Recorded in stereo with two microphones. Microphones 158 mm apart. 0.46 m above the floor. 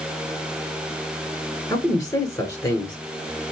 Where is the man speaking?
20° left (ahead or behind), 1.5 m.